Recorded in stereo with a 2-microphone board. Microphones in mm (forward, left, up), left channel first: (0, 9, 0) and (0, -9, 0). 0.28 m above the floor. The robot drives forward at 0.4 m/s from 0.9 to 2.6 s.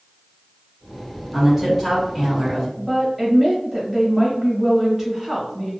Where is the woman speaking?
15° right (ahead or behind), 1.2 m.